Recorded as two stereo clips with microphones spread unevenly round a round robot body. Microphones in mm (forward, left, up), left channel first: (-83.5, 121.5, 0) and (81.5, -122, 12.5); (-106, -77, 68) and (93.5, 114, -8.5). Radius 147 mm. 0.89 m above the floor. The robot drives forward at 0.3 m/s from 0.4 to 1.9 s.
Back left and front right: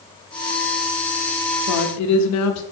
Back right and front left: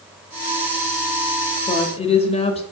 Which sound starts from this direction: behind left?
A woman speaking, at 1.7 s.